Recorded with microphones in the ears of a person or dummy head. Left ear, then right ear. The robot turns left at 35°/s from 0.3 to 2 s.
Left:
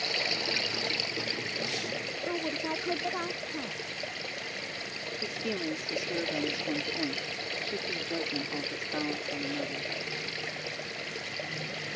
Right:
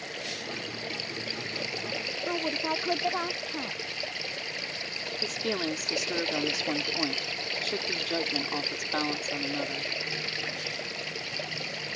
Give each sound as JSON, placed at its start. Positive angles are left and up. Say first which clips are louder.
{"t": 0.0, "sound": "running water", "louder": "left 6 dB", "azimuth_deg": 40}
{"t": 2.3, "sound": "a woman speaking", "louder": "right 3 dB", "side_deg": -25}
{"t": 5.2, "sound": "a woman speaking", "louder": "right 4 dB", "side_deg": -35}